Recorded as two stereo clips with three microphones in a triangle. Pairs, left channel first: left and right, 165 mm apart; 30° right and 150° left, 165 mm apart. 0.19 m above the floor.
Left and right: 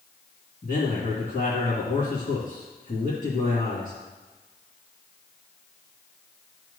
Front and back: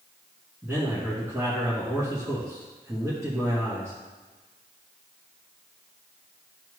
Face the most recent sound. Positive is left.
turn(degrees=80)